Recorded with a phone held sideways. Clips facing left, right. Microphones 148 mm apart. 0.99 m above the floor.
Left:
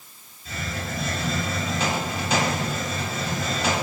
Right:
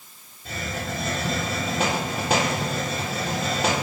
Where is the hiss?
60° right (ahead or behind), 3.5 m.